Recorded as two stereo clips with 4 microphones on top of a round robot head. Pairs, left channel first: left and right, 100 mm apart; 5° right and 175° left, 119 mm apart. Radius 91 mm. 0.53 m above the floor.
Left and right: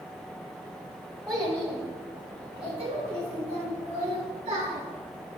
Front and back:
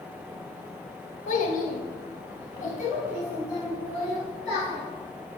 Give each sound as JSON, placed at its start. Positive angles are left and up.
{"t": 1.3, "sound": "a child speaking", "azimuth_deg": 0, "distance_m": 1.2}